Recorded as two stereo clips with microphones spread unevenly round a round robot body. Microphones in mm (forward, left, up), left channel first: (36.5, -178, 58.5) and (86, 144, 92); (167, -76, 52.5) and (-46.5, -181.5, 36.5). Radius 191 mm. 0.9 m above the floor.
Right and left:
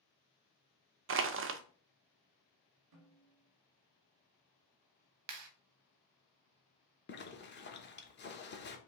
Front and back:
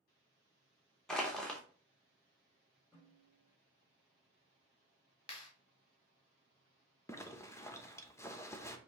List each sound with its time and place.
1.1 s crushing: 115° left, 0.5 m
2.9 s a snare drum: 120° left, 2 m
5.3 s a clap: 90° left, 0.9 m
7.1 s a zipper: 55° right, 1.0 m